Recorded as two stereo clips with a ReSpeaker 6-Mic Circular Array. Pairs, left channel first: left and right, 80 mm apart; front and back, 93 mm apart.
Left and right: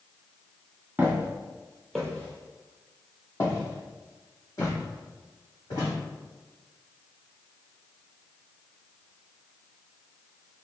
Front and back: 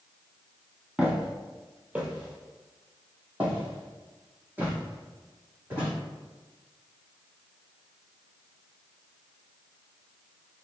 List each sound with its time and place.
1.0 s footsteps: 110° right, 1.5 m; by 5.9 s 110° left, 3.5 m